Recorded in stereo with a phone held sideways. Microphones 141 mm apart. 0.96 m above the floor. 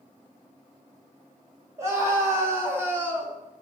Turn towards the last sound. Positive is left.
turn(degrees=-15)  # may be behind; listen again after turning